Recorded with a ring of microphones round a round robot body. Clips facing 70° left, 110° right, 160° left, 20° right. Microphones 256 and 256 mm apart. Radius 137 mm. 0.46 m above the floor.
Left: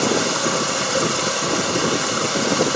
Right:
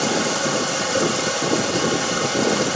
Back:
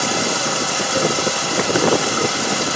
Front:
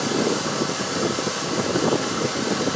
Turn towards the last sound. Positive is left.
turn(degrees=145)